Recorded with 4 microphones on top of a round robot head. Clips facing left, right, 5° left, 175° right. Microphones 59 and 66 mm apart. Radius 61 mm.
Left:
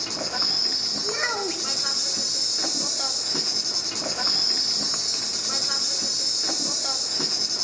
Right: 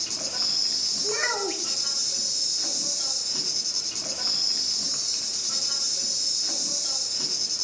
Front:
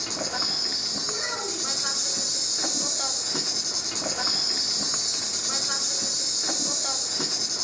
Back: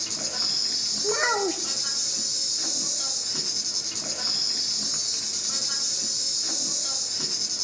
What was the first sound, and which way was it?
An insect, 50° left.